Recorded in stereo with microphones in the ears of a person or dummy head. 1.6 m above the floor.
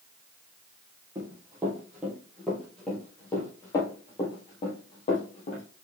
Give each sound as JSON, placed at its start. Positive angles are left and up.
{"t": 1.1, "sound": "running footsteps", "side_deg": -15, "distance_m": 2.5}